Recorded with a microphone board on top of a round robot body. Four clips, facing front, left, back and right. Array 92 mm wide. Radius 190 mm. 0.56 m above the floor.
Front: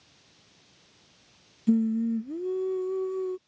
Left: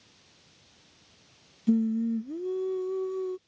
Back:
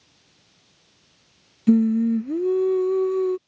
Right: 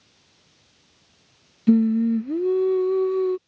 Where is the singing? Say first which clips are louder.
Right 8 dB, back 7 dB; 130° right.